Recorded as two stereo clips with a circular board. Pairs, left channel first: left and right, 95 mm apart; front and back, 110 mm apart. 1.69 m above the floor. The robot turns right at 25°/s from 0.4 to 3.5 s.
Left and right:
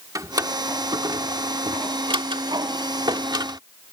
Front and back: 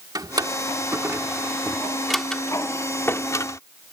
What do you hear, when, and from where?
0.1 s a drawer: 135° right; by 3.6 s 55° right